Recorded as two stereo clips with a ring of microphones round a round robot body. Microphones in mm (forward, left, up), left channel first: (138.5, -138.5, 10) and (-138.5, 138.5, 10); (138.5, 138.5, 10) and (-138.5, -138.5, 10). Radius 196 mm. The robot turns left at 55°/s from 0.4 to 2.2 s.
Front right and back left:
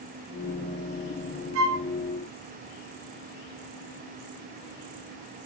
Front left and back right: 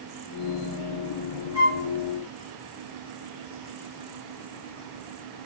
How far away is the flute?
About 2 m.